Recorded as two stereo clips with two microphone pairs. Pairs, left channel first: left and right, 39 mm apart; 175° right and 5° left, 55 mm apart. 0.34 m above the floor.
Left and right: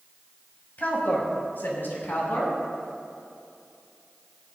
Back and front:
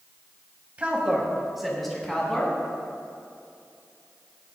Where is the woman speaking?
65° left, 1.9 m; by 2.5 s 110° left, 3 m.